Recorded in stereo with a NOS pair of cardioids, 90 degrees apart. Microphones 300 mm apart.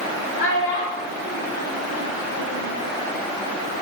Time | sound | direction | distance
0.4 | a child speaking | 70° left | 2.5 m